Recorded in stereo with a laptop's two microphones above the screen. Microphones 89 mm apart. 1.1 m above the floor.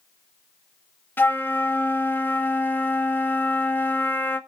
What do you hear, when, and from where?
1.2 s a flute: 20° left (ahead or behind), 0.8 m